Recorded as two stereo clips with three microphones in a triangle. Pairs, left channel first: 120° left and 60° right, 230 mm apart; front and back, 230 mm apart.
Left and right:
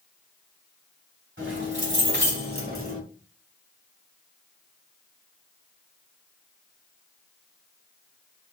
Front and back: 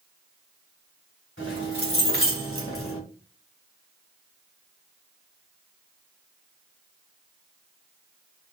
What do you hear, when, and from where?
1.4 s keys jangling: 30° right, 2.5 m; by 3.0 s 10° right, 1.6 m